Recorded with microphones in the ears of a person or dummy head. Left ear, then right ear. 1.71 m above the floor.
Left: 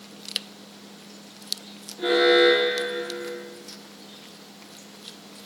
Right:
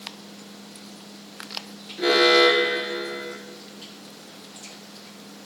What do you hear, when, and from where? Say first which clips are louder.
2.0 s an alarm: right 1 dB; 60° right (ahead or behind), 2.0 m